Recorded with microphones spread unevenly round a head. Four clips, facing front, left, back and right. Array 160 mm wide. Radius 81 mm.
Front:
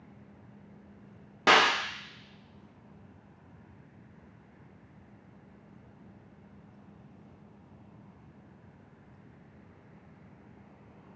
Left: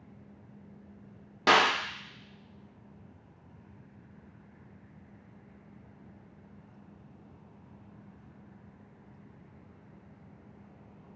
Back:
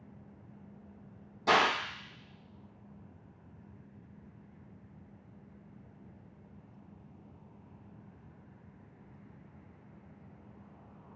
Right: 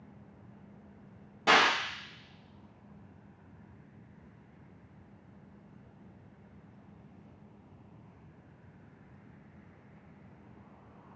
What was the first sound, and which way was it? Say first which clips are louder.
A clap: left 1 dB, front 4 dB; 30° left.